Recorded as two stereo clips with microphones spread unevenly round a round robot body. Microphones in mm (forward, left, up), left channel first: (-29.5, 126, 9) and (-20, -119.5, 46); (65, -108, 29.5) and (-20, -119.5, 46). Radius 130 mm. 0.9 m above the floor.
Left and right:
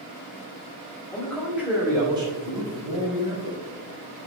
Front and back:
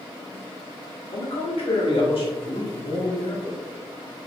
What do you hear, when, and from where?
1.1 s a man speaking: 10° left, 2.0 m; by 3.6 s 25° right, 5 m